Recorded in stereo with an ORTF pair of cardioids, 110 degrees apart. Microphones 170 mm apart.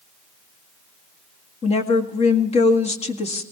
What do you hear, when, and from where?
1.6 s a woman speaking: 40° left, 1.9 m